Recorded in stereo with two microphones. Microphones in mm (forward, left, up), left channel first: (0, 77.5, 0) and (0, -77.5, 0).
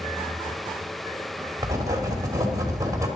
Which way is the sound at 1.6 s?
20° right (ahead or behind).